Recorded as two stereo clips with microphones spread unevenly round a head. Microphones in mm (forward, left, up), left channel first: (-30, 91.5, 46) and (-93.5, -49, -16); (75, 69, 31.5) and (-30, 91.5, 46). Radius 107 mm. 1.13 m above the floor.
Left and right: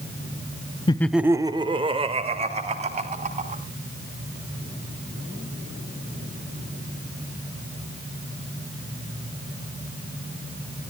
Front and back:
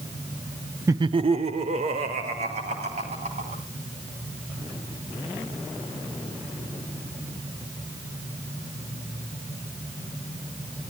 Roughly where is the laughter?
Behind left.